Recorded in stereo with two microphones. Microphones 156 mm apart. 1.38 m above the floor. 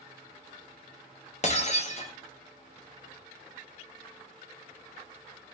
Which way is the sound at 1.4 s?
45° left (ahead or behind).